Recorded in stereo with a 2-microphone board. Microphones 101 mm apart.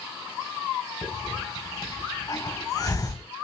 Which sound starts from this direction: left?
A hiss, at 1.0 s.